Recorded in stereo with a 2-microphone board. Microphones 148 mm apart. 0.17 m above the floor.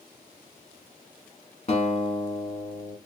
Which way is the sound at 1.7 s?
50° left (ahead or behind).